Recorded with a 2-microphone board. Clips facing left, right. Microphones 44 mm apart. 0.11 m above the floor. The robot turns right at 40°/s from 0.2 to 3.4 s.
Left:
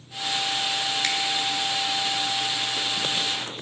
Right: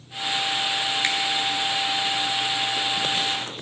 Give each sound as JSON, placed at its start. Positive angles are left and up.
{"t": 1.0, "sound": "a finger snap", "side_deg": -25, "distance_m": 1.2}